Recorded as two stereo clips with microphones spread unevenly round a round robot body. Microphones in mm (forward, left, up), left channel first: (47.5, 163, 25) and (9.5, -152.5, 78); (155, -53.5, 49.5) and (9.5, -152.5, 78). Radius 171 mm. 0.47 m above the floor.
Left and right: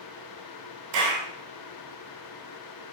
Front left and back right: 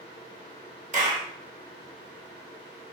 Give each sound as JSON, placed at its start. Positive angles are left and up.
{"t": 0.9, "sound": "a clap", "azimuth_deg": -95, "distance_m": 2.5}